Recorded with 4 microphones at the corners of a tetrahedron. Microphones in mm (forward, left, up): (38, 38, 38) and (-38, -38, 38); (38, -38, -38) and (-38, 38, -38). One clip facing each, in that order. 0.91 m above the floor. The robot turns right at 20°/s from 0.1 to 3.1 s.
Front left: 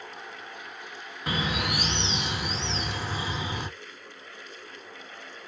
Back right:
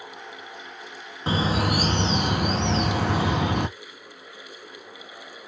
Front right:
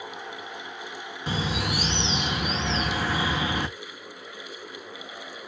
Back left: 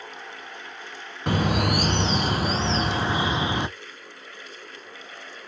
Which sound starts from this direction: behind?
A bird, at 1.3 s.